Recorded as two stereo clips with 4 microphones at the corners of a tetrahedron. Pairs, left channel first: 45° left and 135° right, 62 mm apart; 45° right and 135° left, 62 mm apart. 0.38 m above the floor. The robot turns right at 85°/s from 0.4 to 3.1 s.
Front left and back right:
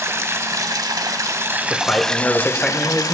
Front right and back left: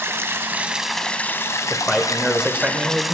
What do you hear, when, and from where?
0.0 s running water: straight behind, 0.7 m; by 3.1 s 50° left, 0.7 m
1.7 s a man speaking: 15° left, 0.9 m; by 3.1 s 135° left, 0.9 m